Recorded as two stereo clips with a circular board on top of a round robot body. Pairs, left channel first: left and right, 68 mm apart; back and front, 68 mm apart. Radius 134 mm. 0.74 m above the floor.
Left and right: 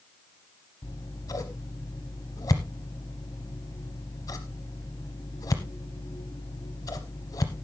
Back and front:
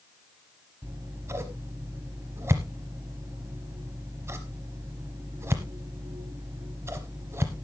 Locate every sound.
0.8 s scissors: 50° left, 0.8 m